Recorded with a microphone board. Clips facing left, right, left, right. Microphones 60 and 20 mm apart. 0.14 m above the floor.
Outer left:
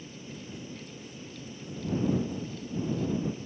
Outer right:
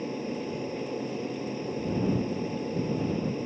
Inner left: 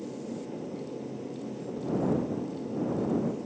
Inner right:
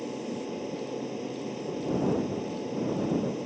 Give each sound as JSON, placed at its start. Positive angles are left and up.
{"t": 0.0, "sound": "an aircraft", "side_deg": -55}